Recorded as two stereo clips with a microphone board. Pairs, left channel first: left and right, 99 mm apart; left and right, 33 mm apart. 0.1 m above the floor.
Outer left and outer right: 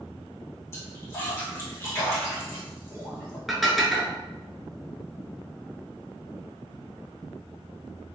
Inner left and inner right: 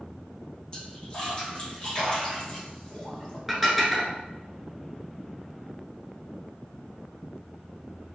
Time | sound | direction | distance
0.7 | a splash | 25° left (ahead or behind) | 1.7 m
3.5 | dishes clattering | centre (ahead or behind) | 0.8 m